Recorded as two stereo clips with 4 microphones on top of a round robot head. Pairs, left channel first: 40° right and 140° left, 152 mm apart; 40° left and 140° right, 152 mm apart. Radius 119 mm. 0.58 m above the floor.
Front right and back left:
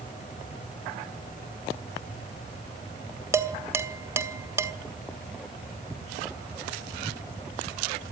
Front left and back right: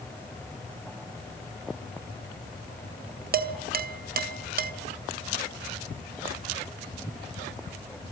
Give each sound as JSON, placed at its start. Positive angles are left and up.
{"t": 3.3, "sound": "dishes clattering", "azimuth_deg": -145, "distance_m": 1.5}